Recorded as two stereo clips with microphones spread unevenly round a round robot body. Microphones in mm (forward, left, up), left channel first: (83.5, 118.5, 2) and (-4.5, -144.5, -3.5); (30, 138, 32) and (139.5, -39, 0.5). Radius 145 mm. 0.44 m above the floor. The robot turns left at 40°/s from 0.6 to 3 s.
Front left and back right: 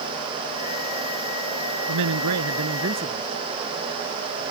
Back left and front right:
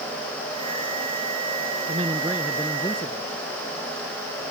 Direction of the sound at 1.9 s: 125° right.